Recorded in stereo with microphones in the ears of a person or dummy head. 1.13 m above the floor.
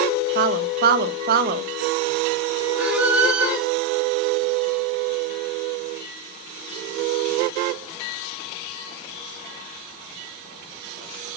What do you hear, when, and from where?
0.3 s a woman speaking: 40° right (ahead or behind), 1.0 m
2.8 s a squeak: centre (ahead or behind), 1.7 m